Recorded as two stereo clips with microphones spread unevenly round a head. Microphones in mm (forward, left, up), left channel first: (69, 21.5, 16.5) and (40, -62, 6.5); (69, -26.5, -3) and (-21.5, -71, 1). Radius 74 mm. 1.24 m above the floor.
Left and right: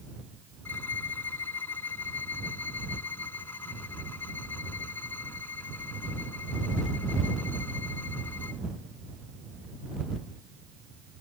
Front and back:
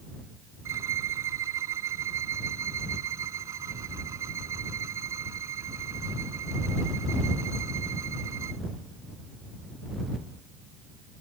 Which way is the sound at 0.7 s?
140° left.